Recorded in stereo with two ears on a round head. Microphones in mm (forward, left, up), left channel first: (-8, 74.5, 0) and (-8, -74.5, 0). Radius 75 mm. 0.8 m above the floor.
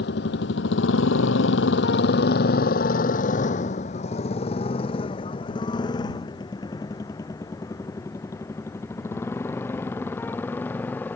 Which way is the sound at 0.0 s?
75° left (ahead or behind).